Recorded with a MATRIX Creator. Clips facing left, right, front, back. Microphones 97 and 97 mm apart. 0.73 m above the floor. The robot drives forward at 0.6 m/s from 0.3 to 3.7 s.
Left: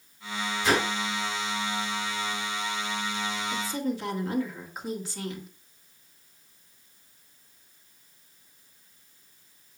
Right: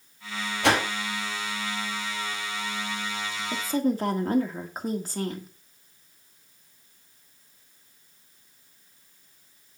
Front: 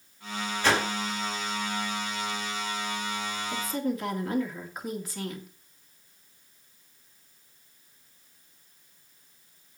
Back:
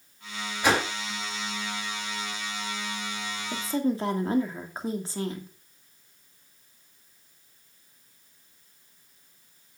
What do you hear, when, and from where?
0.6 s a whoosh: 105° right, 4 m
3.5 s a woman speaking: 120° right, 1.8 m; by 5.5 s 125° right, 1.9 m